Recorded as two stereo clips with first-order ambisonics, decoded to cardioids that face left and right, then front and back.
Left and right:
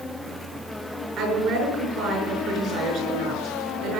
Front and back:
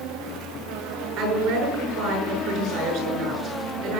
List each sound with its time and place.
1.2 s a woman speaking: 130° right, 7 m